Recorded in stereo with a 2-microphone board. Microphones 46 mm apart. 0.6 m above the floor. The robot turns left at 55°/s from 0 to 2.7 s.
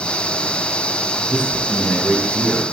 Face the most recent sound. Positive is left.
turn(degrees=-15)